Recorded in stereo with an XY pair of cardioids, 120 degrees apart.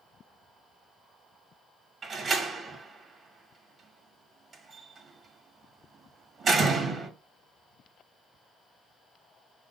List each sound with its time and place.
2.0 s a door slam: 40° right, 1.6 m